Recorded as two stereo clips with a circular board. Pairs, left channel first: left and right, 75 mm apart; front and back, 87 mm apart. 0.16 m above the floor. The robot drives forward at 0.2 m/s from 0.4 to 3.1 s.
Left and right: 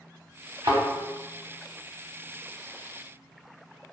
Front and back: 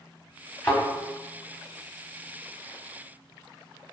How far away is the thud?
About 1.5 m.